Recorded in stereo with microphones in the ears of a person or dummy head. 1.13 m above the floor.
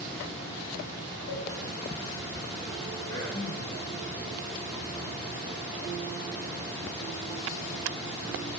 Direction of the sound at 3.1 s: 85° left.